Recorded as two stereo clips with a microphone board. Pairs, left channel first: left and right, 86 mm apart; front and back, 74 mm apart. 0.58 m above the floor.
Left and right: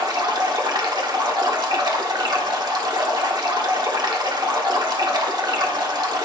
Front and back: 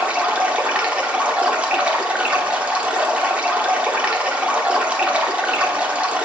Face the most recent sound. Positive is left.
turn(degrees=-110)